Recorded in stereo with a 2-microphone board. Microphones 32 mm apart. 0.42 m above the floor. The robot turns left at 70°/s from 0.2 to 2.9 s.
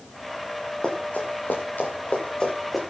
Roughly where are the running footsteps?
Left.